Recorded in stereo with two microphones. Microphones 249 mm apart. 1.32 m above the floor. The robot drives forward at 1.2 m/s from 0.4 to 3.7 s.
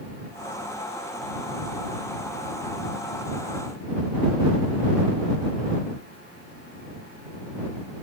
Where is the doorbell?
I don't hear a doorbell.